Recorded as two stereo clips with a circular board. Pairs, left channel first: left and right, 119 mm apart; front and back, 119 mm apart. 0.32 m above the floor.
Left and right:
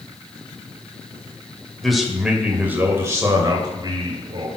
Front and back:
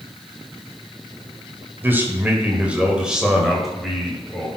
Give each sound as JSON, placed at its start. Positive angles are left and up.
{"t": 1.8, "sound": "a man speaking", "azimuth_deg": 170, "distance_m": 1.6}